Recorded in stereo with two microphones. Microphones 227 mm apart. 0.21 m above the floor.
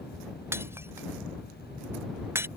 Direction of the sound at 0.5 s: 10° right (ahead or behind).